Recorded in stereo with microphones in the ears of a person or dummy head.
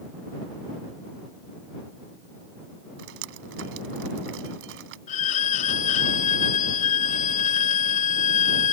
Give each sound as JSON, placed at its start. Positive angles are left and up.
{"t": 3.0, "sound": "dripping", "side_deg": -65}
{"t": 5.1, "sound": "a violin", "side_deg": 45}